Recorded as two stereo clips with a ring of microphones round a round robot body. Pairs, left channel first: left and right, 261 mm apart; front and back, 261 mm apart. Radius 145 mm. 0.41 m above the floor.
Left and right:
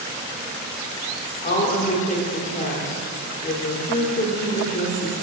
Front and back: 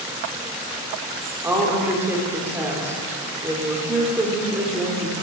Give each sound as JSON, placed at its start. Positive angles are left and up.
{"t": 1.4, "sound": "a woman speaking", "azimuth_deg": 110, "distance_m": 0.9}